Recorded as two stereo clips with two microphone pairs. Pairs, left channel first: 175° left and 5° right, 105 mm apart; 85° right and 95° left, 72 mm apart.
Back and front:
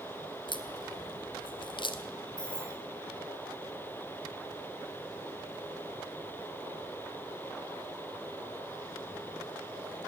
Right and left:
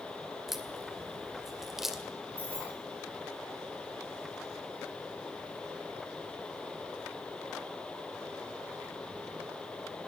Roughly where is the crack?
Behind.